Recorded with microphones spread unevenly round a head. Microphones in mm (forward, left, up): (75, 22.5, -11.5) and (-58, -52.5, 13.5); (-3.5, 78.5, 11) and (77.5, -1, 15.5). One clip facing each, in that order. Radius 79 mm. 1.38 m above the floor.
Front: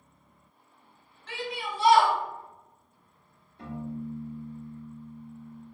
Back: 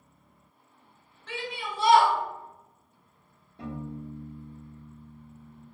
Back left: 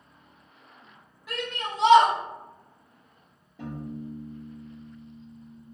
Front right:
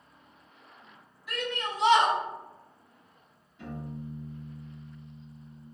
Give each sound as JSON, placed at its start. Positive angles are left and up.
{"t": 1.3, "sound": "a shout", "azimuth_deg": -170, "distance_m": 1.5}
{"t": 3.6, "sound": "a piano", "azimuth_deg": 175, "distance_m": 1.5}